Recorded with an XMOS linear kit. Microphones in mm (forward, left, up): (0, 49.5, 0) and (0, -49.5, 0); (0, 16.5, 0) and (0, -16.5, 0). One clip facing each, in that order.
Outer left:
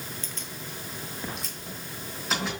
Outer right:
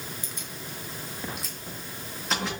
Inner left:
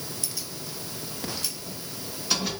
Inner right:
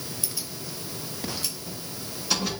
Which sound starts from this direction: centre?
Keys jangling, at 0.2 s.